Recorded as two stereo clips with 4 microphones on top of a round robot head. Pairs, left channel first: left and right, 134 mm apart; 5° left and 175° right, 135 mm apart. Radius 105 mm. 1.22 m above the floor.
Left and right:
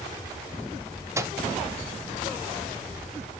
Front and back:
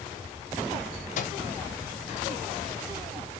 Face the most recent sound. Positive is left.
turn(degrees=-20)